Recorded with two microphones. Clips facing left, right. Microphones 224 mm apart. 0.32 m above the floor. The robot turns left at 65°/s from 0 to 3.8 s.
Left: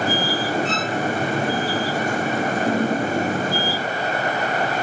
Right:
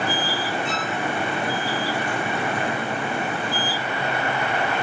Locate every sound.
0.7 s a violin: 15° right (ahead or behind), 1.7 m; by 1.0 s centre (ahead or behind), 1.7 m